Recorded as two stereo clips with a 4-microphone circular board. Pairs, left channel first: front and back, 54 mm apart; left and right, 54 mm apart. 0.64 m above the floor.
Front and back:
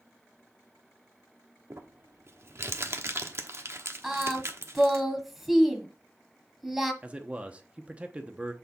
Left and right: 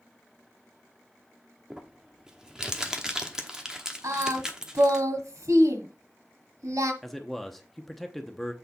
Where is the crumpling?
165° right, 1.0 m.